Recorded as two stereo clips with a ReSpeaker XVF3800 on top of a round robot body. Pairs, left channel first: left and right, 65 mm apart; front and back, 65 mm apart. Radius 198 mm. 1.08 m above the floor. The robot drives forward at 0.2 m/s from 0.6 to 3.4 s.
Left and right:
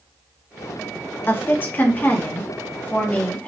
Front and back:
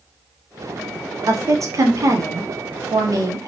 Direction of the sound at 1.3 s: 145° left.